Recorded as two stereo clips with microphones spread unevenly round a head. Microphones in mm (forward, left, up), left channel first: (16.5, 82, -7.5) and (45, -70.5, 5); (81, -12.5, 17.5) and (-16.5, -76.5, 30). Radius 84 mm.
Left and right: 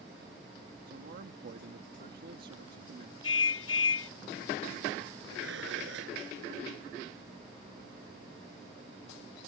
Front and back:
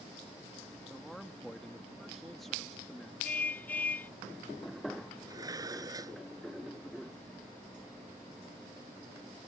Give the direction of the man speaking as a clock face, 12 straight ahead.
2 o'clock.